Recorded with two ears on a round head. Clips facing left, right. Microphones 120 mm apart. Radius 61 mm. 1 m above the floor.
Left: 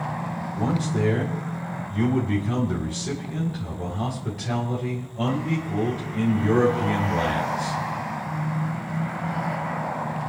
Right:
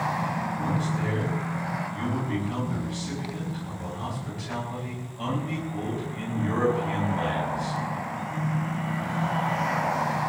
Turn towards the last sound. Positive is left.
turn(degrees=65)  # may be behind; listen again after turning